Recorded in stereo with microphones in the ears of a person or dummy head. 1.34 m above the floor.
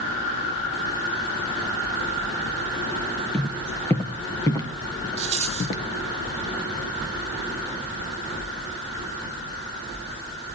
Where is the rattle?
35° right (ahead or behind), 1.3 m.